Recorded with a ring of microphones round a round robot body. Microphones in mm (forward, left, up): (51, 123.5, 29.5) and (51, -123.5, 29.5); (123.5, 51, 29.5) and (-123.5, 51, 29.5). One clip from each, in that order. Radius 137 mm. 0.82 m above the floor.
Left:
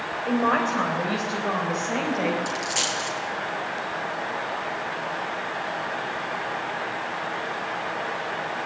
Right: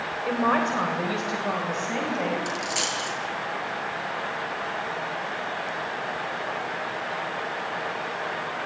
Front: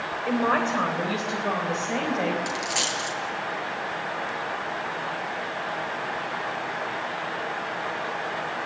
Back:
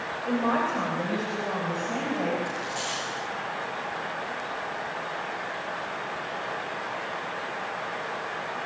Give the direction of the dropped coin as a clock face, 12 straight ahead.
12 o'clock.